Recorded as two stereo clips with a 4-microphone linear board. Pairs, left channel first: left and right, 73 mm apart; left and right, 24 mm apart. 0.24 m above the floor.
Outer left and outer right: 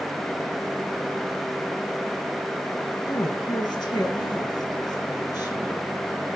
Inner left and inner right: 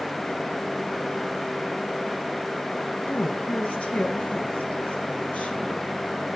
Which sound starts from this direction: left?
A woman speaking, at 3.1 s.